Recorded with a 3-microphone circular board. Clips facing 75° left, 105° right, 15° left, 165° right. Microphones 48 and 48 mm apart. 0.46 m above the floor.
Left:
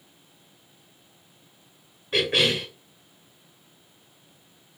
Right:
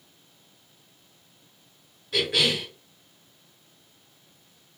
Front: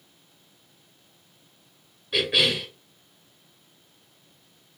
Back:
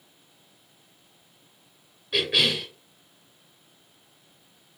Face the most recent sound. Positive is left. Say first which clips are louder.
# left 2 dB, front 1 dB
turn(degrees=100)